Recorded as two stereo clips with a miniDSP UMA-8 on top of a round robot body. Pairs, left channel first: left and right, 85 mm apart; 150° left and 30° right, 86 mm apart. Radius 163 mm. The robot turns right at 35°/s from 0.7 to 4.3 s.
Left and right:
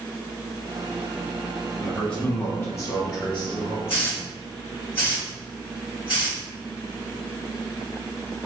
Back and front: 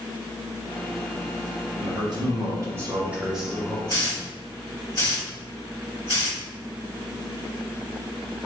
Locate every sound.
1.8 s a man speaking: straight ahead, 1.1 m; by 3.8 s 70° left, 1.1 m
3.9 s a hiss: 100° left, 2.0 m; by 6.4 s 115° left, 2.0 m